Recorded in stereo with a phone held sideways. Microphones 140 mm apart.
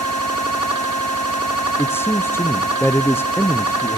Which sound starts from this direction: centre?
A man speaking, at 1.8 s.